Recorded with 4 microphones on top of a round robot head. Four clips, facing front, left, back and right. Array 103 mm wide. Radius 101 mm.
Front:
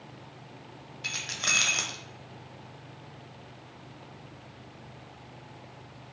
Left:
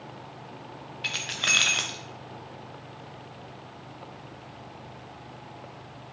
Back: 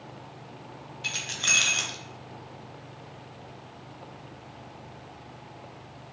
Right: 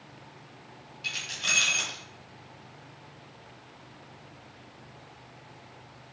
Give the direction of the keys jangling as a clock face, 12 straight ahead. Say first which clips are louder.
Left 3 dB, back 1 dB; 10 o'clock.